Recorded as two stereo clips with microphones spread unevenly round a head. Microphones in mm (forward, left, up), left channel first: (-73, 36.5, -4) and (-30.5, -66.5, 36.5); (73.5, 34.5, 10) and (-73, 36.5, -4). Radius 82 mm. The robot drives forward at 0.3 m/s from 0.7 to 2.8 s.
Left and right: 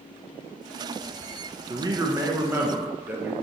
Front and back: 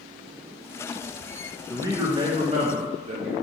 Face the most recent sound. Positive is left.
turn(degrees=-155)